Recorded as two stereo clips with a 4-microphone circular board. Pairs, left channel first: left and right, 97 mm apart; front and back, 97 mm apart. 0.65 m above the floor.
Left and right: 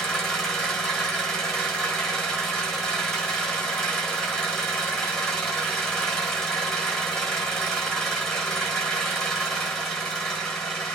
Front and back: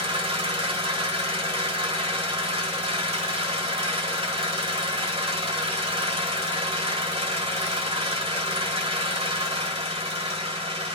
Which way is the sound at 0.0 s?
175° left.